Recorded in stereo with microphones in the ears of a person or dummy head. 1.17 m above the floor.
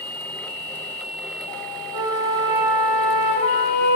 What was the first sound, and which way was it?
A flute, 55° right (ahead or behind).